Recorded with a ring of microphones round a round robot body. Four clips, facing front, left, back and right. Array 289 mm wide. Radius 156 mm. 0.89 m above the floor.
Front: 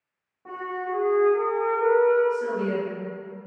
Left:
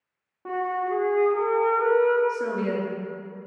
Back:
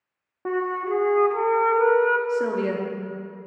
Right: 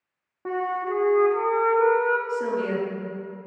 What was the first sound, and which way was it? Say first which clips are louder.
A flute: even, back 6 dB; 170° right.